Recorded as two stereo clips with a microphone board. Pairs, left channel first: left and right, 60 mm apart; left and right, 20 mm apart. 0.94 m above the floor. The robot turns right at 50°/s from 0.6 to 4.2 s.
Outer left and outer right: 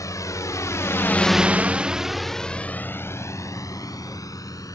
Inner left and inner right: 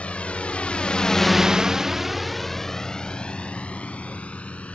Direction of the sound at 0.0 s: 75° left (ahead or behind).